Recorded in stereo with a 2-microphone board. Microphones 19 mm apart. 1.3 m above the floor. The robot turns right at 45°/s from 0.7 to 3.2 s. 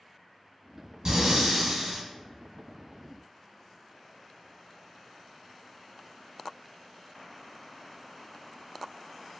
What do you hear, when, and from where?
1.1 s breathing: 75° right, 1.3 m; by 2.0 s 30° right, 1.3 m